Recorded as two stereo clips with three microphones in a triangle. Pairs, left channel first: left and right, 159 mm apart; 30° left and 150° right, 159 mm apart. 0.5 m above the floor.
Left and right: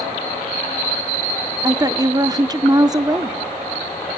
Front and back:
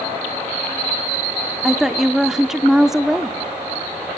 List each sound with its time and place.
1.6 s a woman speaking: 65° right, 0.7 m